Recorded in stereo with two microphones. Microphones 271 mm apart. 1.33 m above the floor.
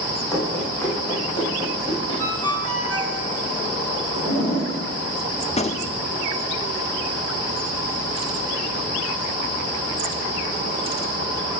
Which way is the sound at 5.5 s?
25° left (ahead or behind).